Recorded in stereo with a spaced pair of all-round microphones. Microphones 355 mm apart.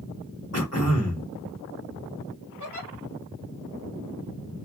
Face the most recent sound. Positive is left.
turn(degrees=55)  # may be behind; listen again after turning